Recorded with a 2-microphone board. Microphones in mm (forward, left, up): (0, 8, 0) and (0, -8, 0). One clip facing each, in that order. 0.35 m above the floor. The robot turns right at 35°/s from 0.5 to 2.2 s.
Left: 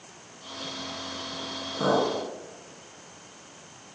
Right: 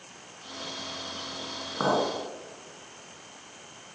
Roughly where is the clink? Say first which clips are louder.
Left 2 dB; right.